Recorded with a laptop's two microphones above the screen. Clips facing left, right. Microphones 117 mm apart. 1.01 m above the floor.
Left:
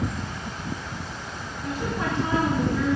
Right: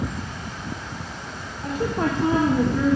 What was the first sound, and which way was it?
A woman speaking, 60° right (ahead or behind).